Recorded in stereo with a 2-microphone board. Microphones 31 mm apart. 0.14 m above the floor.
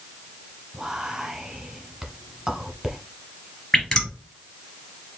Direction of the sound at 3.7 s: 25° left (ahead or behind).